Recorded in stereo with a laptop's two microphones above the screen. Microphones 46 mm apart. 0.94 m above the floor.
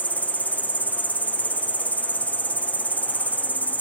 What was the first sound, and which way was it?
An insect, 30° left (ahead or behind).